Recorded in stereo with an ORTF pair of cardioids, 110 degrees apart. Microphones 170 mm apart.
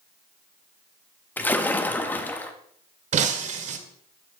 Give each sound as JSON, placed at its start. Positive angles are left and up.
{"t": 1.4, "sound": "a splash", "azimuth_deg": 10, "distance_m": 1.5}
{"t": 3.1, "sound": "breaking glass", "azimuth_deg": -45, "distance_m": 1.9}